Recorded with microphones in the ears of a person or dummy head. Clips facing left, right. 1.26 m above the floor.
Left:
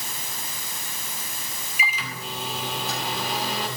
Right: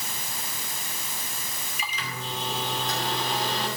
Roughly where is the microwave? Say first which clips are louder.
Left 3 dB; centre.